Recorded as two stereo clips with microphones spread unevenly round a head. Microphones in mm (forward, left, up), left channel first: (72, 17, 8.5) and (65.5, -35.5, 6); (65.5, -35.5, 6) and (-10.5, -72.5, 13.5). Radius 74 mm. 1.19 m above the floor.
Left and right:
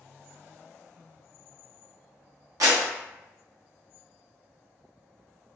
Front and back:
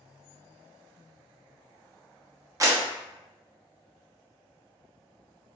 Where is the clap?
105° right, 0.9 m.